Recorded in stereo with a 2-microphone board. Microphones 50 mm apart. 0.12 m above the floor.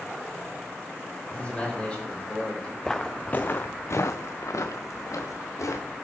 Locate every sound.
1.3 s a man speaking: 25° left (ahead or behind), 4.5 m; by 2.7 s 15° left (ahead or behind), 5.5 m
2.8 s footsteps: 10° left (ahead or behind), 0.7 m; by 5.9 s 80° left, 1.6 m